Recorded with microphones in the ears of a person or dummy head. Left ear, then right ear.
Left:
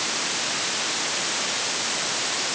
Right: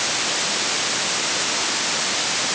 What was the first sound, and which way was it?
Only background noise.